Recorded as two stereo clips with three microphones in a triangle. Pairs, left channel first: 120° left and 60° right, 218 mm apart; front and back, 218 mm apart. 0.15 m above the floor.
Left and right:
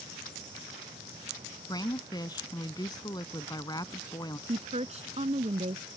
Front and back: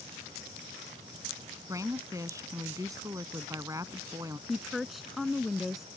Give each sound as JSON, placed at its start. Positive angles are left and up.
{"t": 1.7, "sound": "a woman speaking", "azimuth_deg": 140}
{"t": 4.5, "sound": "a woman speaking", "azimuth_deg": -90}